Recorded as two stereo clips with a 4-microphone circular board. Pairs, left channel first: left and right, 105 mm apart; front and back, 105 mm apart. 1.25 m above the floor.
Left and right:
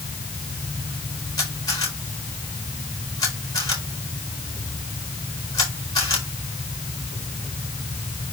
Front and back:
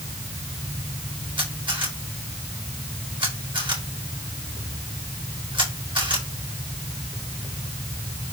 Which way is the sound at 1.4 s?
140° left.